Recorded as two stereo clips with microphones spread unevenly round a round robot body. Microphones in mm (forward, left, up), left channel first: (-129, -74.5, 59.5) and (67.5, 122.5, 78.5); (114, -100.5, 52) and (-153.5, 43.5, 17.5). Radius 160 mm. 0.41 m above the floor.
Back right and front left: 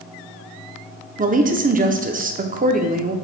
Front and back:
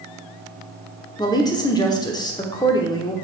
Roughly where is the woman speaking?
Ahead left.